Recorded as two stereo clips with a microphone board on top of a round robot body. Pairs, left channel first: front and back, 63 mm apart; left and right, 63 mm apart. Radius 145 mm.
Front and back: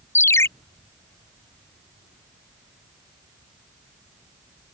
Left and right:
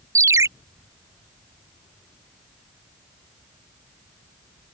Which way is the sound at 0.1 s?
50° right.